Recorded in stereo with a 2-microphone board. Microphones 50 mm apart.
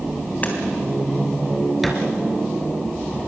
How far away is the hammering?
About 3.5 m.